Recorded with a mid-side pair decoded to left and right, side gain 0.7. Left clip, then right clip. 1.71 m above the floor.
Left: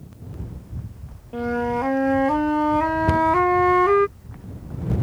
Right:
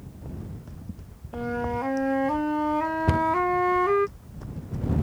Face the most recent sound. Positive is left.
turn(degrees=0)